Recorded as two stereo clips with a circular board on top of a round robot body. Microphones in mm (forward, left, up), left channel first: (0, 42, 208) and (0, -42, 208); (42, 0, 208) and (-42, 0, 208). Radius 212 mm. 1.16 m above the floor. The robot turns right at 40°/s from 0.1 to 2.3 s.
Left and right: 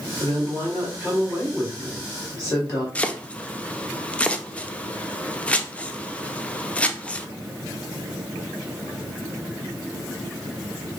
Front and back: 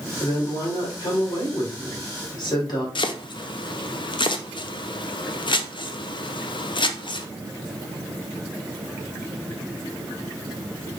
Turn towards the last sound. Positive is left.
turn(degrees=15)